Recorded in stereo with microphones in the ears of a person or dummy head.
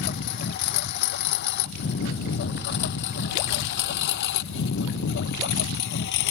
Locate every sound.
0.0 s a lawn mower: 50° left (ahead or behind); by 6.3 s 60° left (ahead or behind)